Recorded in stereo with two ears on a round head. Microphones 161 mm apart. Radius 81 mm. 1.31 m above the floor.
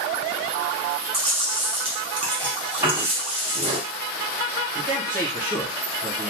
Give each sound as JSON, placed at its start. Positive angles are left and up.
{"t": 1.1, "sound": "chewing", "side_deg": -30, "distance_m": 0.8}
{"t": 2.8, "sound": "a piano", "side_deg": -15, "distance_m": 1.3}
{"t": 4.8, "sound": "a man speaking", "side_deg": -40, "distance_m": 1.4}